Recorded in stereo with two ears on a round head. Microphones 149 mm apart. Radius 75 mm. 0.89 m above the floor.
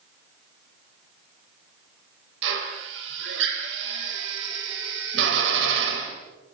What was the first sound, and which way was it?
A drill, 75° right (ahead or behind).